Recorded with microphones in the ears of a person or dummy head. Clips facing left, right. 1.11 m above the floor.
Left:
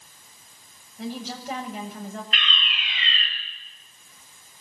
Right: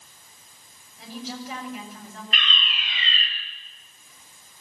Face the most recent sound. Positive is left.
turn(degrees=-85)